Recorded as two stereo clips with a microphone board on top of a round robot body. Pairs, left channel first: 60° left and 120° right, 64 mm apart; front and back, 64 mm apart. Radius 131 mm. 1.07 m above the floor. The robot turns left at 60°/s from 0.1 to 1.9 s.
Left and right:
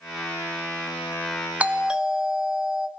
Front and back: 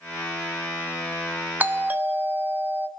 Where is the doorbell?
160° right, 0.9 m; by 2.9 s straight behind, 0.9 m.